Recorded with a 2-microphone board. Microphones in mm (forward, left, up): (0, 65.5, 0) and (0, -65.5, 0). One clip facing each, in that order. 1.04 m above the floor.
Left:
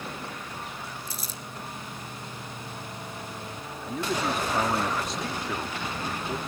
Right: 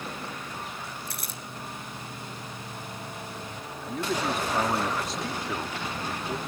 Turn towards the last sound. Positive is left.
turn(degrees=0)  # may be behind; listen again after turning